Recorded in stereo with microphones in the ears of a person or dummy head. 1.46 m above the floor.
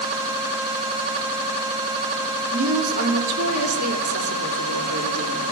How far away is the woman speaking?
About 4 m.